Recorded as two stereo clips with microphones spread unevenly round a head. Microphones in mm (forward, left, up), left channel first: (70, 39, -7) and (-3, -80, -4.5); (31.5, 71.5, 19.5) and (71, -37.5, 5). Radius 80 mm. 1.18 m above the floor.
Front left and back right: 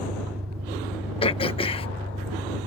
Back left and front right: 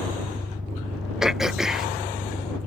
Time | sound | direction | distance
0.0 | an engine running | 150° right | ?
1.2 | throat clearing | 10° left | ?